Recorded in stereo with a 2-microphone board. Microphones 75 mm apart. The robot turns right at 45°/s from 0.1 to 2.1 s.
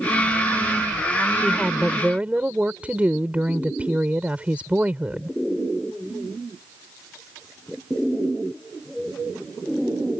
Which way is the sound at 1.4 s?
165° left.